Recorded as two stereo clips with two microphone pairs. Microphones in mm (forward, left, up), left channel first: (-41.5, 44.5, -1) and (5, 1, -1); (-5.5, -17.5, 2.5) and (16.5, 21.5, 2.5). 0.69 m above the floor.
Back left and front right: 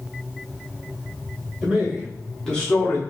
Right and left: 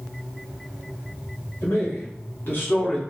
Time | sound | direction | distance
1.6 | a man speaking | 125° right | 1.8 m